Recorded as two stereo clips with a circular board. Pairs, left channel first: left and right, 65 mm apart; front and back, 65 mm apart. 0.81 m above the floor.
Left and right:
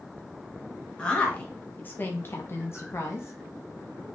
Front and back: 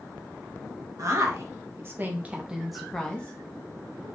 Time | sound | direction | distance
1.0 | a woman speaking | 165° left | 1.2 m